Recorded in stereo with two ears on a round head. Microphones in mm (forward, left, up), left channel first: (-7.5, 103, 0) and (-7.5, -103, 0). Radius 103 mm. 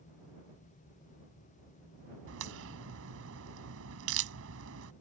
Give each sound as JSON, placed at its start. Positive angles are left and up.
{"t": 2.3, "sound": "a crack", "side_deg": -65}